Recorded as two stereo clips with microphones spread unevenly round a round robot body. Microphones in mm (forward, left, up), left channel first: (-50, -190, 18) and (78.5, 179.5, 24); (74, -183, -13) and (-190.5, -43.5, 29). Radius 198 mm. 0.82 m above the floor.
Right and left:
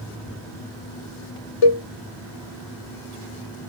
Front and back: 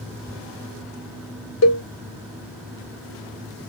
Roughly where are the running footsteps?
I don't hear running footsteps.